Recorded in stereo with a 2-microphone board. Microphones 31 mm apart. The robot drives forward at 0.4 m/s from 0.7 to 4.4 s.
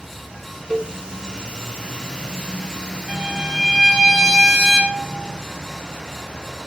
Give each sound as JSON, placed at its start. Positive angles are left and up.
{"t": 0.7, "sound": "a cowbell", "side_deg": 5, "distance_m": 1.6}
{"t": 3.1, "sound": "a violin", "side_deg": -5, "distance_m": 3.5}